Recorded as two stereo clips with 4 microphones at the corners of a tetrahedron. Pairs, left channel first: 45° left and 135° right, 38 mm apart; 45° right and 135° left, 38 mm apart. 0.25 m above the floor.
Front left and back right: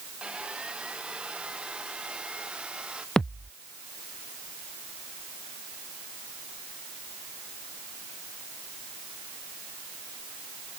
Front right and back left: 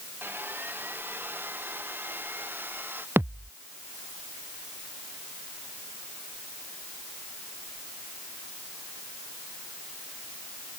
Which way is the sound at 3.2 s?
115° left.